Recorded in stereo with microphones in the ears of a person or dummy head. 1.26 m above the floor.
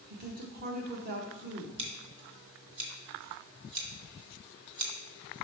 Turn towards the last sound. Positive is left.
turn(degrees=-30)  # may be behind; listen again after turning